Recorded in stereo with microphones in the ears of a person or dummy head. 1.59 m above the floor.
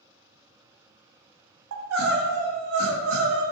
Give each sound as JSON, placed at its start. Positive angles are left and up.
{"t": 1.7, "sound": "crying", "side_deg": -85, "distance_m": 0.6}